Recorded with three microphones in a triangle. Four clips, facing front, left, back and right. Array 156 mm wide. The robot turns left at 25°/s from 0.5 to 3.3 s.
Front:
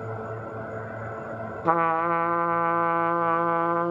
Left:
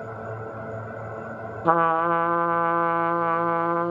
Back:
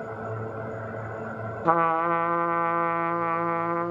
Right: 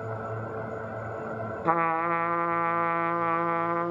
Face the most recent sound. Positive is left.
turn(degrees=50)